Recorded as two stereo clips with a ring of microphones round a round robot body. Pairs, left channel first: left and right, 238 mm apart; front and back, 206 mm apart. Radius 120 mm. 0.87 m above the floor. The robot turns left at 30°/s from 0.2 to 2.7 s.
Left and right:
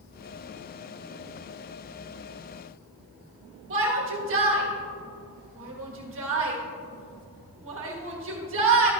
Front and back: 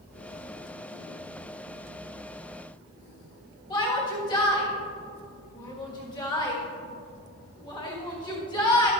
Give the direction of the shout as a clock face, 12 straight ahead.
2 o'clock.